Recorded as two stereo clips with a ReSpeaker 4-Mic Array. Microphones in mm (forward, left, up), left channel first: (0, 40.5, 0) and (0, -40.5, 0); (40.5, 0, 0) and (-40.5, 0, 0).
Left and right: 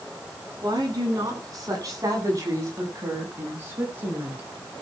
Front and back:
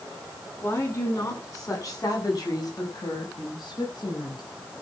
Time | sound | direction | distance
0.6 | a woman speaking | 50° right | 9.5 m